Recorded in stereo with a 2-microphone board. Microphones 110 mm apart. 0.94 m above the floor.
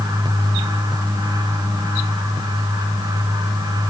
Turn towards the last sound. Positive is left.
No sound to turn to.